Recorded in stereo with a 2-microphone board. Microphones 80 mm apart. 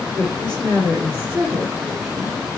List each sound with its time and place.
0.2 s a woman speaking: 35° right (ahead or behind), 5.5 m; by 2.4 s 5° right (ahead or behind), 3 m